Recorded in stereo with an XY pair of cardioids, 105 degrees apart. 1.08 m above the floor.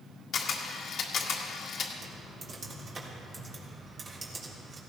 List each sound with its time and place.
0.3 s a camera shutter: 65° left, 1.9 m
2.0 s typing on a keyboard: 45° right, 3.5 m